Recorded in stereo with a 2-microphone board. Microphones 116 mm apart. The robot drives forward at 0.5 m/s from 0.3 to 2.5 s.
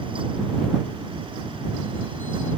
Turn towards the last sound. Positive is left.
No sound to turn to.